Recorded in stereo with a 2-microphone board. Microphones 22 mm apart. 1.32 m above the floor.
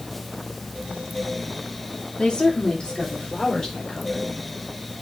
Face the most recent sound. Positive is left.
turn(degrees=35)  # may be behind; listen again after turning